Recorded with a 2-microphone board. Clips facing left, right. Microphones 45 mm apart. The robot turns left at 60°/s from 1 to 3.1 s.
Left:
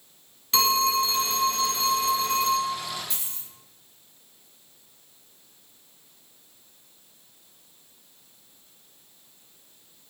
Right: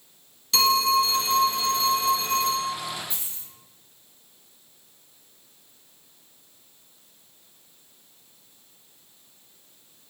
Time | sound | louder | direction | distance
0.5 | a phone ringing | right 2 dB | 145° left | 0.9 m
3.1 | a dropped coin | even | 70° left (ahead or behind) | 1.5 m